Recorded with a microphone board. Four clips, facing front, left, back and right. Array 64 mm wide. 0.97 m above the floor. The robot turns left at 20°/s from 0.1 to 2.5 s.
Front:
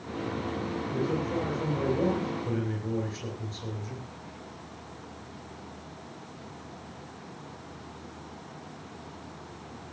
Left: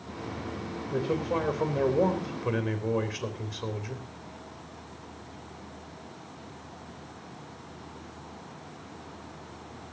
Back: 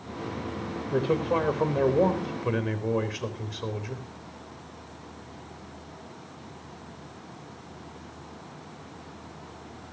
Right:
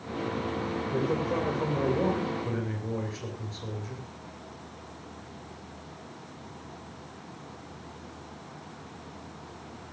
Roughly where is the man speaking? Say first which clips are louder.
Left 1 dB, back 6 dB; behind.